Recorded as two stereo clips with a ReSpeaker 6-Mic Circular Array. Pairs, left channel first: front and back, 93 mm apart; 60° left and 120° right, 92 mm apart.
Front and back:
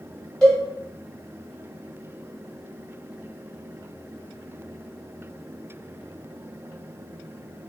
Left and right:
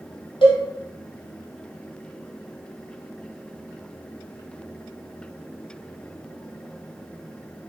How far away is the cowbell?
About 1.1 m.